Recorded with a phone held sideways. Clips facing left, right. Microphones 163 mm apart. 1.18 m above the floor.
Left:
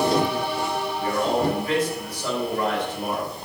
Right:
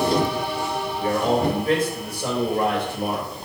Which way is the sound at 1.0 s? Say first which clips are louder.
Right 2 dB; 50° right (ahead or behind).